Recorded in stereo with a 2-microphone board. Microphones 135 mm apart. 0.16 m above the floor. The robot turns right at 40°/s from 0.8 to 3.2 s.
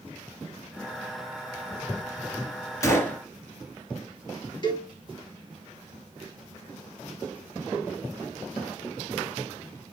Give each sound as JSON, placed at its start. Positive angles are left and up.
{"t": 2.8, "sound": "a gunshot", "side_deg": 20, "distance_m": 2.0}
{"t": 4.6, "sound": "a cowbell", "side_deg": 35, "distance_m": 2.5}